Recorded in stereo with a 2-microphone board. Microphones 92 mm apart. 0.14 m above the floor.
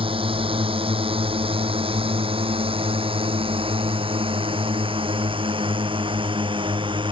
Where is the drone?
75° right (ahead or behind); by 7.1 s 65° right (ahead or behind).